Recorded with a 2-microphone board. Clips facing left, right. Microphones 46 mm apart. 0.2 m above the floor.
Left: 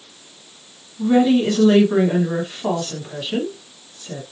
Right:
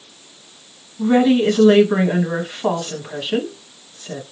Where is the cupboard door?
No cupboard door in this recording.